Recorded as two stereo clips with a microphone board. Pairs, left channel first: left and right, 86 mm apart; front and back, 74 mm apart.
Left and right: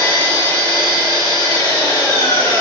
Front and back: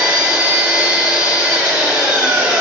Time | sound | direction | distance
0.0 | an engine running | 110° left | 1.5 m